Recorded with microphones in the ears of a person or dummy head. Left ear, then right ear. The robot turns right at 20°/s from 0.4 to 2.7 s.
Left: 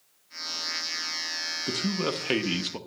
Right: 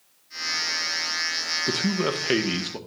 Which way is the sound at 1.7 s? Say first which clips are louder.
Right 4 dB; 5° right (ahead or behind).